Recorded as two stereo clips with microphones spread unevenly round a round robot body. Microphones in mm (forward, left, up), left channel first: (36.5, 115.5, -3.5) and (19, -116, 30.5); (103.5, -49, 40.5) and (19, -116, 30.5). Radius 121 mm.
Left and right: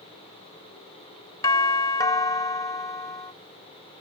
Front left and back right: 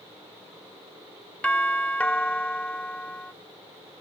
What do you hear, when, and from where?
1.4 s a doorbell: 115° left